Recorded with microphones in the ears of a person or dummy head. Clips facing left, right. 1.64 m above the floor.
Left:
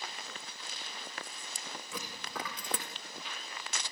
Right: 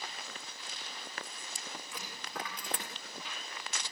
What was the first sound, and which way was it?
A dropped coin, 75° left (ahead or behind).